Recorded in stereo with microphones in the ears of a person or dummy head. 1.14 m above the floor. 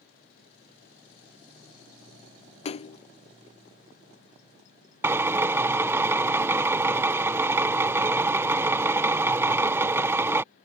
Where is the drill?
15° right (ahead or behind).